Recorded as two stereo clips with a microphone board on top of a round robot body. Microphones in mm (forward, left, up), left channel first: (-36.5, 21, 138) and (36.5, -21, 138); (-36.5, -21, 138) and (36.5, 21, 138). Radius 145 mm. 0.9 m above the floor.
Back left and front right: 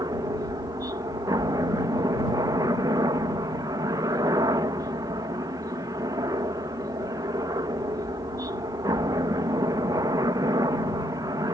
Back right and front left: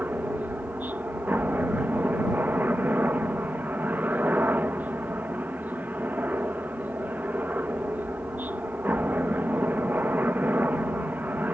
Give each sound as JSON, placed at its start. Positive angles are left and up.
{"t": 0.0, "sound": "a helicopter", "azimuth_deg": -30}